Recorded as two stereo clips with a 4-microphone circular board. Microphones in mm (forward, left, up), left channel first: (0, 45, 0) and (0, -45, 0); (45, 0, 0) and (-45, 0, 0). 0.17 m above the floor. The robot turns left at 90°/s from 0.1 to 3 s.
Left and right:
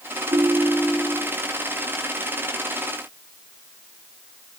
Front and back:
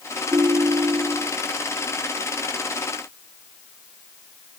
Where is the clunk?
No clunk in this recording.